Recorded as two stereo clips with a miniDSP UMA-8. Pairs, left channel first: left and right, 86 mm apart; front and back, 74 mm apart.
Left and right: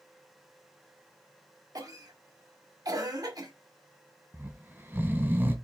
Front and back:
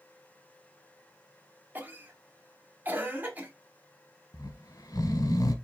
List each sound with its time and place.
1.8 s a cough: 120° right, 1.3 m
4.3 s snoring: 25° right, 0.9 m